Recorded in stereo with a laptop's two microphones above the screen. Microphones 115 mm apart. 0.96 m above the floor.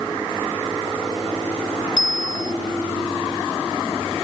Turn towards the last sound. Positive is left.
turn(degrees=40)  # may be behind; listen again after turning